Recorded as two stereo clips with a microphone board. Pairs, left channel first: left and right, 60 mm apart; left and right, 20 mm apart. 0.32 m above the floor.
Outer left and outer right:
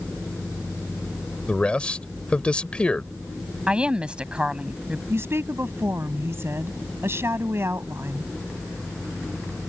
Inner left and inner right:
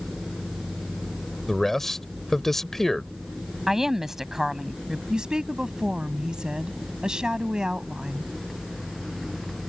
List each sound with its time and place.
1.5 s a man speaking: 20° left (ahead or behind)
3.7 s a woman speaking: 15° right (ahead or behind)
5.1 s a woman speaking: 45° right (ahead or behind)